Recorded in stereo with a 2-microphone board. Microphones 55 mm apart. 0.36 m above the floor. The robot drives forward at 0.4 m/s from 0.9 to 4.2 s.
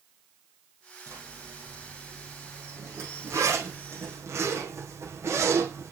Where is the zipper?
60° right (ahead or behind), 8 m; by 5.9 s 55° right (ahead or behind), 8.5 m.